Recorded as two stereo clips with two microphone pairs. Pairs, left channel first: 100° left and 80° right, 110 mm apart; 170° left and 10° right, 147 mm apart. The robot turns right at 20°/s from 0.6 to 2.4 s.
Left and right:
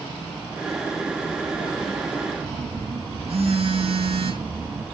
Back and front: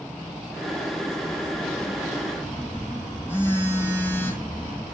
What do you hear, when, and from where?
2.4 s a phone buzzing: 115° right, 3 m